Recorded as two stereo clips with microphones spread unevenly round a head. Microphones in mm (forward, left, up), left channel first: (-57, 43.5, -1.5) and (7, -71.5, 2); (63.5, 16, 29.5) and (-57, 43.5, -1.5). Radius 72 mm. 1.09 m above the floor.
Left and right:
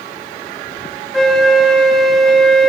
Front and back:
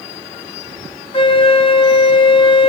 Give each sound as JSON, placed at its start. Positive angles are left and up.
{"t": 1.1, "sound": "a flute", "azimuth_deg": 30, "distance_m": 0.9}